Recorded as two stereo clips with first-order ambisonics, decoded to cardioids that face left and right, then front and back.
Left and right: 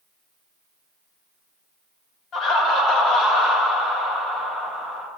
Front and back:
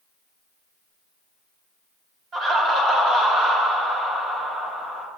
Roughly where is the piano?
No piano in this recording.